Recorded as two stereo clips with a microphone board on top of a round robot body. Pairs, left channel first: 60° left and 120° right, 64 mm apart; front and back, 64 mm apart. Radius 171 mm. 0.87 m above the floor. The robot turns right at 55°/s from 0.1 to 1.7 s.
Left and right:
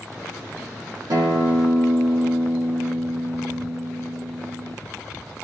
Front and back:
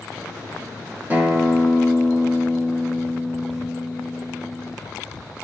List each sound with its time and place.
1.1 s a guitar: 115° right, 1.0 m; by 4.8 s 80° right, 1.0 m